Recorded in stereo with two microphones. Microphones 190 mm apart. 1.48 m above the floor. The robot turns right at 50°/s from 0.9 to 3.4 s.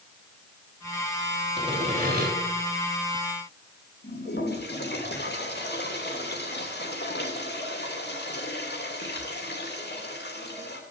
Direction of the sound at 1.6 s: 155° right.